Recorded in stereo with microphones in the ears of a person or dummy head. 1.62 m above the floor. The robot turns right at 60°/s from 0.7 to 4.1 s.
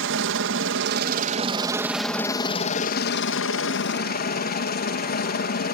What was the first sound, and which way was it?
A helicopter, 80° right.